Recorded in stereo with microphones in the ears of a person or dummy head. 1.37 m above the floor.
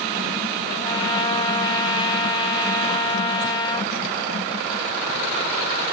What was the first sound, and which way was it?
A trumpet, 25° left (ahead or behind).